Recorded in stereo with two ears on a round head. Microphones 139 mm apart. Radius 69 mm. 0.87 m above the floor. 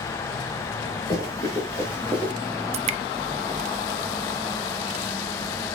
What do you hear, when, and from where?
1.1 s running footsteps: 25° left (ahead or behind), 4 m; by 2.3 s 10° left (ahead or behind), 4 m
2.7 s dripping: 40° right (ahead or behind), 0.7 m